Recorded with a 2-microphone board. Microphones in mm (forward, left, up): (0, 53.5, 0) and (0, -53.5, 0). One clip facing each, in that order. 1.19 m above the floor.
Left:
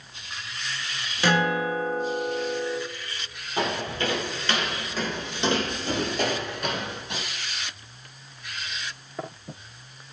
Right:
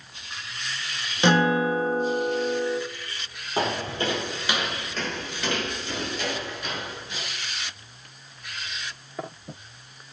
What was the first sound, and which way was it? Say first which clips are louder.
A guitar: right 3 dB; 20° right (ahead or behind).